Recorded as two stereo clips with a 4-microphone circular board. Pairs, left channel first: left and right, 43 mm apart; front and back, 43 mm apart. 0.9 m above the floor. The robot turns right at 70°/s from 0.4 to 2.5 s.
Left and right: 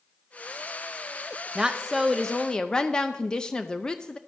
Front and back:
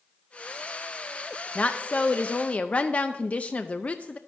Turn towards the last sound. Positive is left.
turn(degrees=30)